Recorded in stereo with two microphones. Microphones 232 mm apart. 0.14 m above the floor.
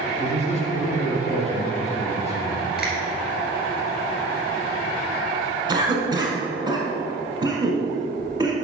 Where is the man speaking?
30° left (ahead or behind), 1.9 m.